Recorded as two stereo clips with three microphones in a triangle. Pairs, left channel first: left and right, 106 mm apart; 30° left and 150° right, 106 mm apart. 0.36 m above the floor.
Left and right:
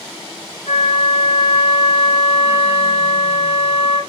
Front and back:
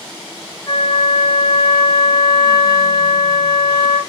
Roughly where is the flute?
Left.